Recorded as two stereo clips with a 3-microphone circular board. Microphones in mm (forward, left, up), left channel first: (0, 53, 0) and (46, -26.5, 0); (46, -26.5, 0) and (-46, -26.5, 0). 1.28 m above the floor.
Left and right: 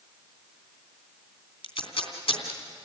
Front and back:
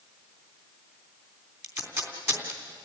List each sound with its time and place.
1.6 s tape being pulled: 120° left, 3 m